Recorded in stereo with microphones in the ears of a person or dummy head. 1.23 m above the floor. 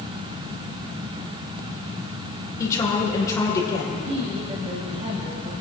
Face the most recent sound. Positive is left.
turn(degrees=-25)  # may be behind; listen again after turning